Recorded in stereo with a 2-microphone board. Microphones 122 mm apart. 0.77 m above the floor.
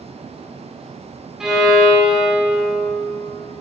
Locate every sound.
1.4 s a violin: 5° right (ahead or behind), 1.5 m